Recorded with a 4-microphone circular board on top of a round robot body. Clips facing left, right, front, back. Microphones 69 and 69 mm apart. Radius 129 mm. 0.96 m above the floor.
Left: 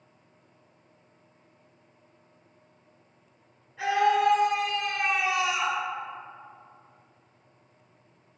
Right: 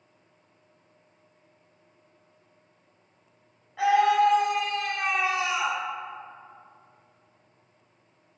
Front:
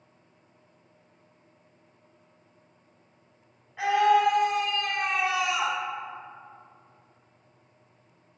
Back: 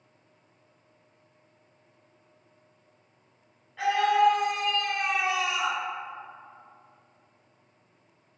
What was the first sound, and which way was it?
A scream, 80° right.